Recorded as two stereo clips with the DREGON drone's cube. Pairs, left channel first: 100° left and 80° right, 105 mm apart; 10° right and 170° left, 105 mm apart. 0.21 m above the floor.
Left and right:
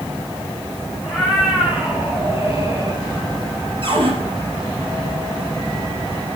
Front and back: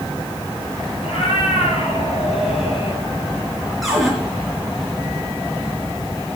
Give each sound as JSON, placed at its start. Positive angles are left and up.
{"t": 1.0, "sound": "a cat meowing", "azimuth_deg": 0, "distance_m": 4.0}
{"t": 3.8, "sound": "a cupboard door", "azimuth_deg": -100, "distance_m": 4.0}